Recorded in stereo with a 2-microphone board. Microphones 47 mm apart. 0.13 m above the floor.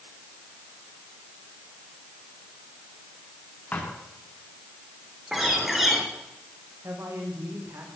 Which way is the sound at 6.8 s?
65° right (ahead or behind).